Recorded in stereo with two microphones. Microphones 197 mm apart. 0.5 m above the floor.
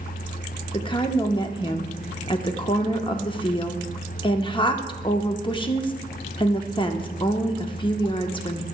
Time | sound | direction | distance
0.7 | a woman speaking | 25° left (ahead or behind) | 0.7 m